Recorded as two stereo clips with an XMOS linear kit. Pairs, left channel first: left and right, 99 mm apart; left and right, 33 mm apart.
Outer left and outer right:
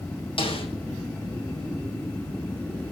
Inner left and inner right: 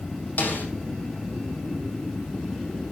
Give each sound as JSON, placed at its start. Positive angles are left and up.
{"t": 0.4, "sound": "a snare drum", "side_deg": 65, "distance_m": 5.0}